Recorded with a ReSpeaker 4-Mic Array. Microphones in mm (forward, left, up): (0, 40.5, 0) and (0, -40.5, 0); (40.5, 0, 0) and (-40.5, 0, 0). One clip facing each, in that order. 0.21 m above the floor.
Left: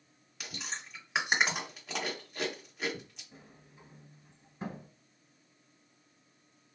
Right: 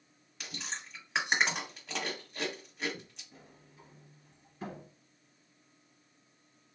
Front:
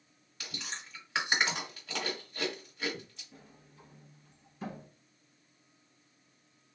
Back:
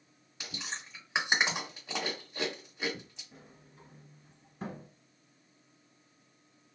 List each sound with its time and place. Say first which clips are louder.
0.4 s chewing: even, back 1 dB; 170° left, 1.4 m
3.3 s a sliding door: left 1 dB, back 1 dB; 150° left, 1.3 m